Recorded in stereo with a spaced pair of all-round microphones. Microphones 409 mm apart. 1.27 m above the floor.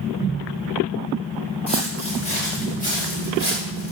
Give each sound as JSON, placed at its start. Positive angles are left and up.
{"t": 1.7, "sound": "footsteps", "side_deg": 15, "distance_m": 5.5}